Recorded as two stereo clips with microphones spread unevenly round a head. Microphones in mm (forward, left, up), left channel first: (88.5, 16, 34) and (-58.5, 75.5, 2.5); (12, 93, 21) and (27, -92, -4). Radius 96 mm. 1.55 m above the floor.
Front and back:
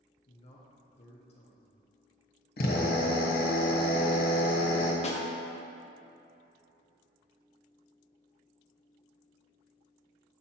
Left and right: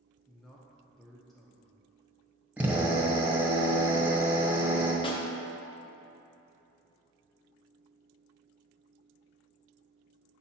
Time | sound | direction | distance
0.3 | a man speaking | 10° left | 0.8 m
2.6 | a drill | straight ahead | 1.0 m
5.0 | a snare drum | 30° left | 0.9 m